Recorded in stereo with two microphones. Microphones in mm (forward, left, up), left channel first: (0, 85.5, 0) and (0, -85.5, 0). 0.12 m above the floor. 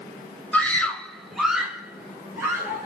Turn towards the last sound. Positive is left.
turn(degrees=-10)  # may be behind; listen again after turning